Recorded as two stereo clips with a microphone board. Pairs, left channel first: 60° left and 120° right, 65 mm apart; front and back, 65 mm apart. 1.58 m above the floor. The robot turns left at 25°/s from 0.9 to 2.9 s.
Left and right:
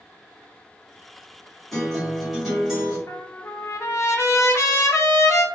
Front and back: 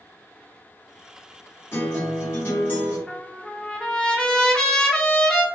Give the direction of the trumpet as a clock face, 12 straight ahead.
10 o'clock.